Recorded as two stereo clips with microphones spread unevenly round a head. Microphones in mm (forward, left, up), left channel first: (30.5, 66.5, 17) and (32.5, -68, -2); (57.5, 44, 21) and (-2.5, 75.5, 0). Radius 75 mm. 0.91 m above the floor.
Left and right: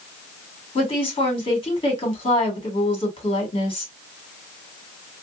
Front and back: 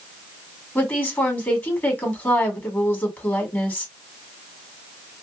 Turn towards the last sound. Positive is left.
turn(degrees=40)